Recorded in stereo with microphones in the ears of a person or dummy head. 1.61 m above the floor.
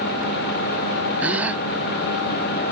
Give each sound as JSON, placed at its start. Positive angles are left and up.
{"t": 1.2, "sound": "a gasp", "side_deg": -10}